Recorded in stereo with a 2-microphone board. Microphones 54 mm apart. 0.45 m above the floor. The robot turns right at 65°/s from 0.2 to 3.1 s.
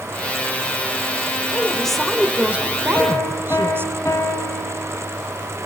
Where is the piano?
45° left (ahead or behind), 2.5 m; by 5.1 s 55° left (ahead or behind), 2.5 m.